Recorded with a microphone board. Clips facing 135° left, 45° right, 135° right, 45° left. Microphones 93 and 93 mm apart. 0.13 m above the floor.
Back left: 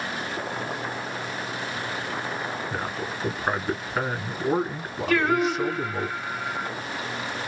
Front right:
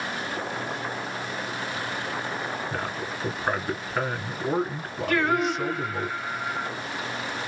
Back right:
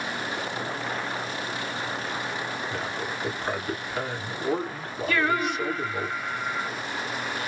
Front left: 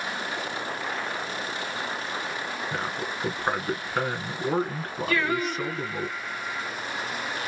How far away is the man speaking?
About 1.4 m.